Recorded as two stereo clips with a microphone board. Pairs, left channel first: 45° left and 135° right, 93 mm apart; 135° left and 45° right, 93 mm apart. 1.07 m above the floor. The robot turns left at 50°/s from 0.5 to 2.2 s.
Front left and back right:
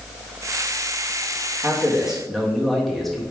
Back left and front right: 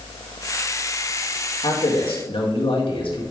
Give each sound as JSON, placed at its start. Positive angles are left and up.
{"t": 1.6, "sound": "a man speaking", "azimuth_deg": 165, "distance_m": 1.5}